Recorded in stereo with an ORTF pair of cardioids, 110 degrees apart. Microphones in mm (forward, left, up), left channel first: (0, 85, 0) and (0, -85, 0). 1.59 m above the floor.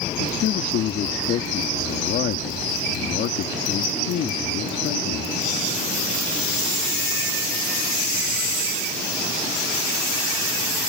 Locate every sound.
0.2 s a man speaking: 65° left